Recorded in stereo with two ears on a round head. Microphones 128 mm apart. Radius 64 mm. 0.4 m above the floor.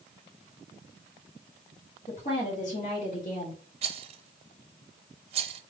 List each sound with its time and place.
2.1 s a woman speaking: 55° left (ahead or behind), 2.5 m; by 3.6 s 60° left (ahead or behind), 2.5 m
3.8 s a rattle: 40° right (ahead or behind), 0.5 m